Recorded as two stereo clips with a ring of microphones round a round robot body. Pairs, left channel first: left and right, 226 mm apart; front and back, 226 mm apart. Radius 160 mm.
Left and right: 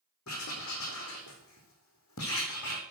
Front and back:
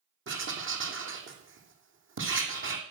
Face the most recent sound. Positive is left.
turn(degrees=145)